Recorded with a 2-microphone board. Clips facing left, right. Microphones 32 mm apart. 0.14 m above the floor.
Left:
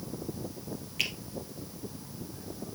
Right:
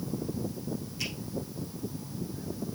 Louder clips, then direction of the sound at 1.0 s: Left 6 dB; 60° left (ahead or behind).